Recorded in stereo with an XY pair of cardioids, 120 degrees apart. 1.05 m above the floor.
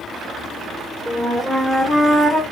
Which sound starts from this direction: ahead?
A flute, at 1.1 s.